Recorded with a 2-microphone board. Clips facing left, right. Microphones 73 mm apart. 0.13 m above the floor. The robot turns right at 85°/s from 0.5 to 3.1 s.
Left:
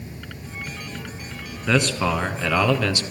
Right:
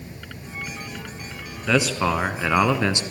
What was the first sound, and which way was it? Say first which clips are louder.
A man speaking: even; 5° left (ahead or behind).